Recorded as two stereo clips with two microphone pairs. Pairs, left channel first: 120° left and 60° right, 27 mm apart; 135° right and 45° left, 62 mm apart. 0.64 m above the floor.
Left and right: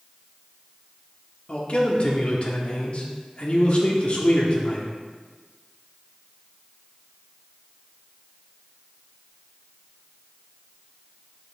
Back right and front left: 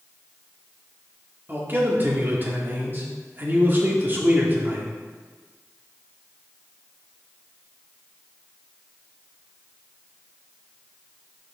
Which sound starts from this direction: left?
A man speaking, at 1.5 s.